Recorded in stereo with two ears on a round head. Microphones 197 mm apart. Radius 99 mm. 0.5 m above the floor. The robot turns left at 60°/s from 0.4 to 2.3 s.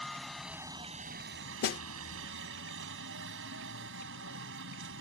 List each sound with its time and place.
0.0 s a helicopter: straight ahead; by 5.0 s 115° right
1.6 s a snare drum: 45° left (ahead or behind); by 1.8 s 50° left (ahead or behind)